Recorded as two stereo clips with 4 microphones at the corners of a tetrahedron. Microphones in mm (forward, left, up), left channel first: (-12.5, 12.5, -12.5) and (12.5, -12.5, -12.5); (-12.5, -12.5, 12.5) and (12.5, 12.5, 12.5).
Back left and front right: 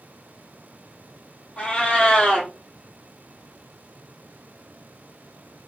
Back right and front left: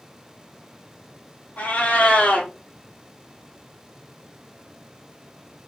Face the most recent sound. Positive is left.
turn(degrees=-165)